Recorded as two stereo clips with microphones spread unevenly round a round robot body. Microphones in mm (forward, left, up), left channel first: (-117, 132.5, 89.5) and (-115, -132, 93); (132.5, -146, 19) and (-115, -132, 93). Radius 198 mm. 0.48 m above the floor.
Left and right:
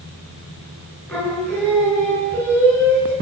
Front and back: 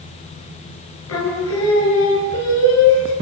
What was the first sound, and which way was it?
Singing, 5° left.